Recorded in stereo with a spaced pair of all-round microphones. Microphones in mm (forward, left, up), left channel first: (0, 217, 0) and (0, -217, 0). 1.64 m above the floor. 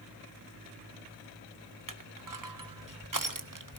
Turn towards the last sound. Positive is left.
turn(degrees=-45)  # may be behind; listen again after turning